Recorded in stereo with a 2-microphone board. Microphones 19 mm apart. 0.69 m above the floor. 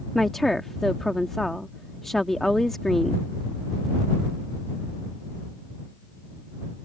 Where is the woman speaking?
25° left (ahead or behind).